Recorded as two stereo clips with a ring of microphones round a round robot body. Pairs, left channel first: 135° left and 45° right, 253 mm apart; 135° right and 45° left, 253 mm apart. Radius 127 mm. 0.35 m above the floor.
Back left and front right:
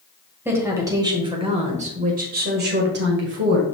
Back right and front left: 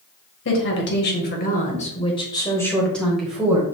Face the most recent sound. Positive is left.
turn(degrees=-35)